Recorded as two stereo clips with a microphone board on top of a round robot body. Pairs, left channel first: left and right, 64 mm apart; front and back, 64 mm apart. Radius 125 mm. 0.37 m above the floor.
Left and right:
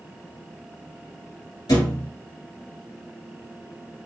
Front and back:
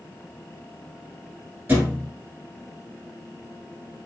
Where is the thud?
120° left, 1.3 m.